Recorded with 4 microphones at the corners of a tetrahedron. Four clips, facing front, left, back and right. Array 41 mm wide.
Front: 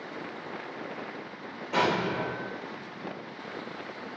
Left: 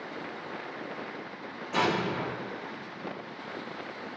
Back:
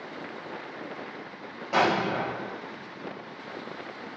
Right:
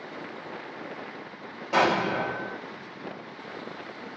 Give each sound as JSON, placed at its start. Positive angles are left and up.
{"t": 1.7, "sound": "an explosion", "azimuth_deg": -135, "distance_m": 5.5}